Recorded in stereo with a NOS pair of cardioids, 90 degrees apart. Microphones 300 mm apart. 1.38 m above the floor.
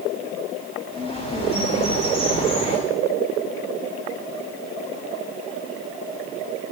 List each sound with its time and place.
0.9 s a bird: 20° left, 8 m